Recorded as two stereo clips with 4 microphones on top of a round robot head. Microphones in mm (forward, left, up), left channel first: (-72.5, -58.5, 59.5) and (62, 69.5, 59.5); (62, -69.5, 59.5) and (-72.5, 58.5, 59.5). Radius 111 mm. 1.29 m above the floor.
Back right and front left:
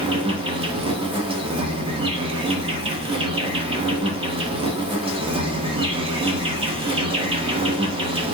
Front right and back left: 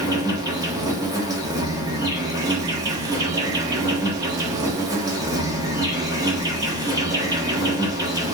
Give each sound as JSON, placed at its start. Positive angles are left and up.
{"t": 0.0, "sound": "an insect", "azimuth_deg": 80, "distance_m": 0.9}